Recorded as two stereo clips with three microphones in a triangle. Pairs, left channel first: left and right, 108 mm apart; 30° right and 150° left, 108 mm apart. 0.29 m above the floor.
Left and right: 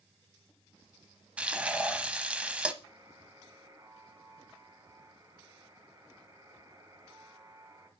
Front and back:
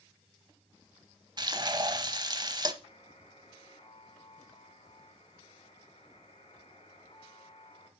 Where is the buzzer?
35° right, 3 m.